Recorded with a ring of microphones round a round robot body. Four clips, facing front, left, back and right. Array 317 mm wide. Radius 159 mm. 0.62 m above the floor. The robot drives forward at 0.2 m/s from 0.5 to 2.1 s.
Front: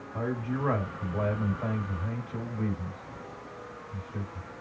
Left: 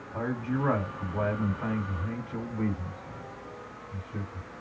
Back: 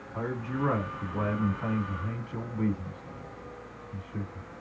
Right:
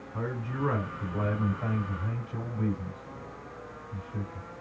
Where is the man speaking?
100° left, 2 m; by 4.5 s 105° left, 2.5 m.